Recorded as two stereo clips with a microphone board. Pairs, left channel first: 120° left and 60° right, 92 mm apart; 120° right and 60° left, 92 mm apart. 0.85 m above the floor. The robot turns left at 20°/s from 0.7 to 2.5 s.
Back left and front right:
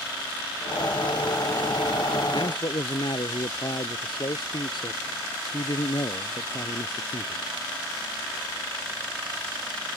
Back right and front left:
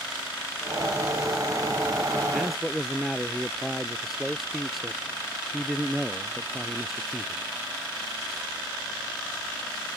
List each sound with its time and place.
2.3 s a man speaking: 150° left